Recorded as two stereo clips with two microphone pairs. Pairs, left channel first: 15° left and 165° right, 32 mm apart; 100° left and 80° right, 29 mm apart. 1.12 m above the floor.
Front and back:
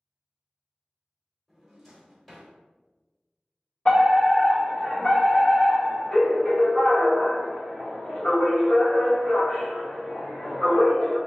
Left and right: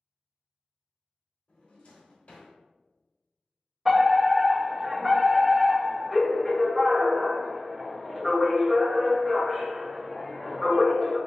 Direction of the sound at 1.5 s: 95° left.